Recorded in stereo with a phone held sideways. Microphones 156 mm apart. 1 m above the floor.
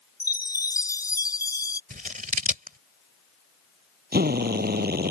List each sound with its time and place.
0.2 s a chime: 25° left (ahead or behind)
1.9 s scissors: 60° right (ahead or behind)
4.1 s a drill: 85° right